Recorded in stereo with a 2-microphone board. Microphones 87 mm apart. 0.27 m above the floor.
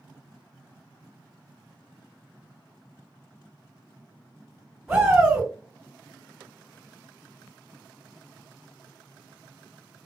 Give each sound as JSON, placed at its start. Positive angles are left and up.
{"t": 4.9, "sound": "a shout", "side_deg": -5, "distance_m": 2.0}